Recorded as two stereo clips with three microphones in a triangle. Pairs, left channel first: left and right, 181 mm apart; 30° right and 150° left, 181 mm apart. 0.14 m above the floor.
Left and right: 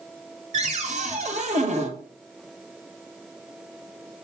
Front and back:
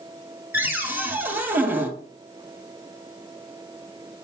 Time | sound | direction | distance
0.5 | a cupboard door | 130° right | 1.6 m